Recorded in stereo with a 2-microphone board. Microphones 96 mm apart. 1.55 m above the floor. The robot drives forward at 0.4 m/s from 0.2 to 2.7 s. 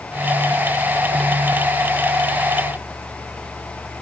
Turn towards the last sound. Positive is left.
No sound to turn to.